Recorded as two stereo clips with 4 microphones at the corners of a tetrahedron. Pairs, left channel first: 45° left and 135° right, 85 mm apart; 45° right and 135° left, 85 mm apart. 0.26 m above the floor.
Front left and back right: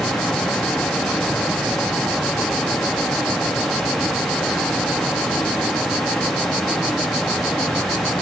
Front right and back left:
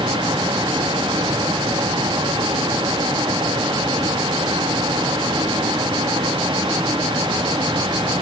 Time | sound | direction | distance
0.0 | running water | 135° left | 4 m